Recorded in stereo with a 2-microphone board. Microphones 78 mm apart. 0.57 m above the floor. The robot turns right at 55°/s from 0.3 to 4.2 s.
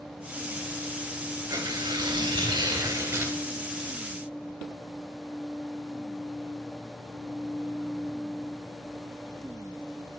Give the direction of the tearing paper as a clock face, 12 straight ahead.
4 o'clock.